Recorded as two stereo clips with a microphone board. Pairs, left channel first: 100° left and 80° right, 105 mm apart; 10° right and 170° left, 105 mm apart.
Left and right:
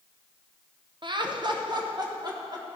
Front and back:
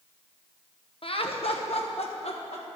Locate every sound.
1.0 s laughter: 35° right, 0.8 m; by 2.6 s 25° right, 1.7 m